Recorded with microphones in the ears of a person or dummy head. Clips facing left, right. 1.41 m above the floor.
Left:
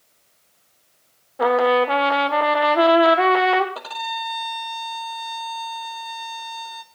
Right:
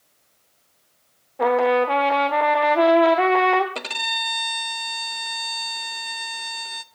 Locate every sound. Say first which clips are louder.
1.4 s a trumpet: left 1 dB; centre (ahead or behind), 1.1 m
3.8 s a violin: left 2 dB; 35° right (ahead or behind), 0.7 m